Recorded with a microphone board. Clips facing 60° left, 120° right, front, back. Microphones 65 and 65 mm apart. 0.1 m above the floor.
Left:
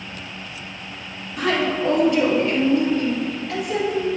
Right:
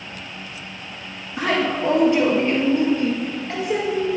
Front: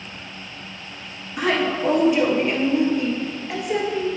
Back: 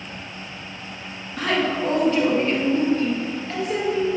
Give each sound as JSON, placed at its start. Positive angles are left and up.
{"t": 1.4, "sound": "a woman speaking", "azimuth_deg": -70, "distance_m": 1.7}